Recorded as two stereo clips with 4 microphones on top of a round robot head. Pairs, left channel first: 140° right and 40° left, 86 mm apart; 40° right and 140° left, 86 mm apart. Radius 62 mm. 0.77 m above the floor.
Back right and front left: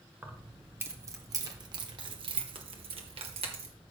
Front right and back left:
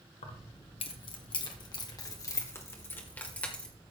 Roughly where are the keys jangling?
Ahead right.